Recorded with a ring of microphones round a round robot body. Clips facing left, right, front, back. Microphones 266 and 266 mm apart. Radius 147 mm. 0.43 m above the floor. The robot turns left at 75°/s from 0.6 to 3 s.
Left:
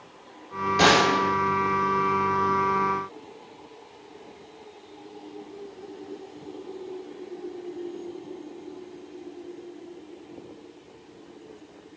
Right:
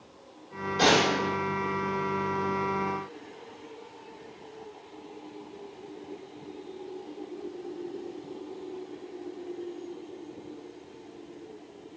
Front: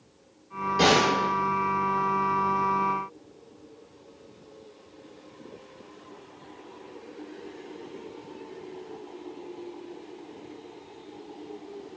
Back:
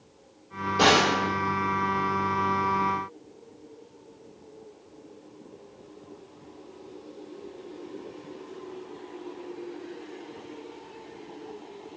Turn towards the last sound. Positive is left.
turn(degrees=-100)